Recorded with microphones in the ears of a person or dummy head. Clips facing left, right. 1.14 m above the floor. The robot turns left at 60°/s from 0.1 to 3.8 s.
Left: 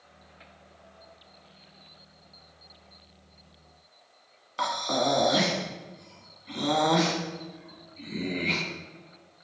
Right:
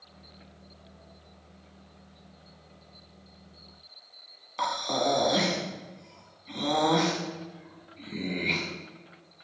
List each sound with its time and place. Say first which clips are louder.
4.6 s breathing: left 1 dB; 5° left (ahead or behind), 1.9 m